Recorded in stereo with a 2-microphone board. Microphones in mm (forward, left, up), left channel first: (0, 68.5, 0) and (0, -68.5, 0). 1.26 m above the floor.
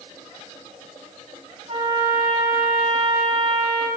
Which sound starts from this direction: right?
A trumpet, at 1.7 s.